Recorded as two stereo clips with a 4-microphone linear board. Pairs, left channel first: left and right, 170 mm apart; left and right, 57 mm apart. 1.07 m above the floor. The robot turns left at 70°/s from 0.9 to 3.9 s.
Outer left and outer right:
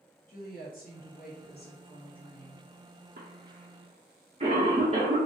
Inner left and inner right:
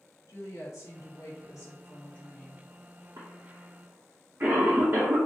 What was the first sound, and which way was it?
A woman speaking, 120° left.